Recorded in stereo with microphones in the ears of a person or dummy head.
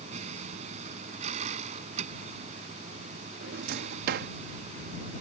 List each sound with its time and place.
0.0 s a vehicle: 45° right (ahead or behind)
3.4 s a drawer: 60° right (ahead or behind)